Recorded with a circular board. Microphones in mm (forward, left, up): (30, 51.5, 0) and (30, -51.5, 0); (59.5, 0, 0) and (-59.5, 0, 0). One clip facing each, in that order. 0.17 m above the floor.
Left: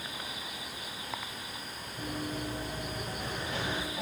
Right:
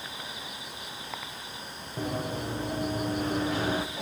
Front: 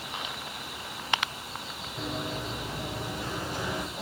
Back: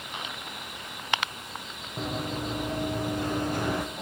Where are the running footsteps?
125° right, 4 m; by 3.9 s 140° right, 3.5 m.